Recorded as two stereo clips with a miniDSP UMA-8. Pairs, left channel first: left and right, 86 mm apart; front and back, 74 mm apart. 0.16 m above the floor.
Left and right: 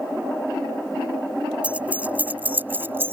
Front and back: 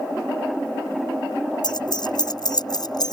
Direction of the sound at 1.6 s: 15° right.